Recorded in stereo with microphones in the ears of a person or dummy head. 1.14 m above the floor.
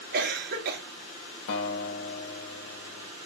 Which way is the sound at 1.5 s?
70° left (ahead or behind).